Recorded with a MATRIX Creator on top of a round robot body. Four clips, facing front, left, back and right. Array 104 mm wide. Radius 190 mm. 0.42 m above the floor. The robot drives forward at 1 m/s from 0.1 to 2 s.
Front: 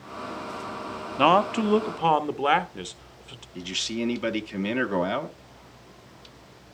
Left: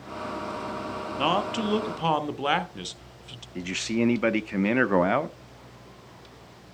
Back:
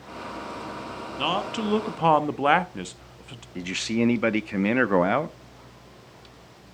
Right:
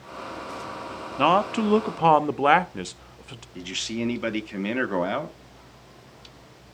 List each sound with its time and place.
1.2 s a man speaking: 30° right, 1.2 m; by 3.5 s 110° right, 1.0 m
3.5 s a man speaking: 145° left, 1.0 m